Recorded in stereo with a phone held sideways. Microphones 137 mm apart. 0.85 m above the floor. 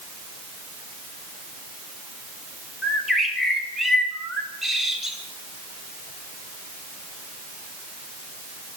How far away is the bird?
About 1.8 m.